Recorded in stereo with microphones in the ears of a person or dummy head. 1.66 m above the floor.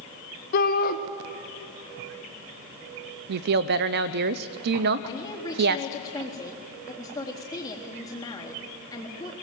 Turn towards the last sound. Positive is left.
turn(degrees=15)  # may be behind; listen again after turning